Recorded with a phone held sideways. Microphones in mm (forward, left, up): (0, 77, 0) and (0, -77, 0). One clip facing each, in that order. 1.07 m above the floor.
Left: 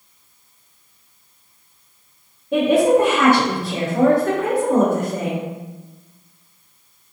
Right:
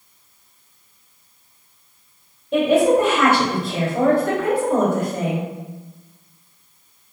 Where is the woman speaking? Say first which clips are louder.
Left 1 dB; 85° left, 1.8 m.